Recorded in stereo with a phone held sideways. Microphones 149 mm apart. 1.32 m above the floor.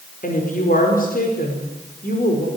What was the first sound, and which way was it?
A woman speaking, 70° left (ahead or behind).